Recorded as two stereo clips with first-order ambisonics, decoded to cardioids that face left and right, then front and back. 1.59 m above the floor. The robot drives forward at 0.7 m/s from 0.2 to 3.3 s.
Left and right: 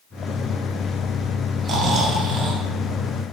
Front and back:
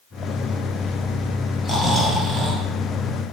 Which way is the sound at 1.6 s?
85° right.